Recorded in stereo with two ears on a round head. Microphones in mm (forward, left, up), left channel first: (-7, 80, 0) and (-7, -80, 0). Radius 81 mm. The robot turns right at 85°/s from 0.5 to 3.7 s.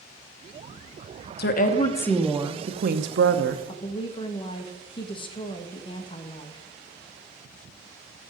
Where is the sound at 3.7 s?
30° left (ahead or behind), 1.1 m.